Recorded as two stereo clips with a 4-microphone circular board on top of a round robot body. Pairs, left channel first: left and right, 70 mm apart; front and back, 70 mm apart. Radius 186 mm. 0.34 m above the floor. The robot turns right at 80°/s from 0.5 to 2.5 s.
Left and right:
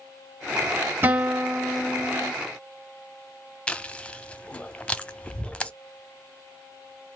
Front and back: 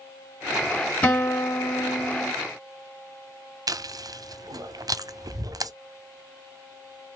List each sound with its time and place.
1.0 s a guitar: 65° right, 1.5 m; by 2.3 s 40° left, 1.5 m
3.7 s chewing: 165° left, 0.8 m